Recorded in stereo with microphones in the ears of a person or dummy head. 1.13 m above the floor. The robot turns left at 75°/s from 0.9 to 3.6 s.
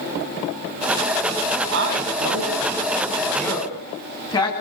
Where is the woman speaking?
65° right (ahead or behind), 9.5 m; by 4.5 s 25° left (ahead or behind), 9.5 m.